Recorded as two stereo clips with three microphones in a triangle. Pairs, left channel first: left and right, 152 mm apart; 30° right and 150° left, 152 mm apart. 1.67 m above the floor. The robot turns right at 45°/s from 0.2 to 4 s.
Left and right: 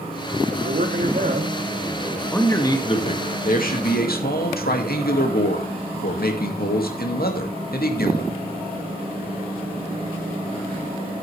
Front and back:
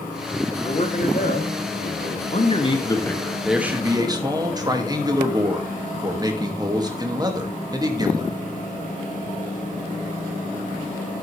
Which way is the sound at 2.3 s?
10° left.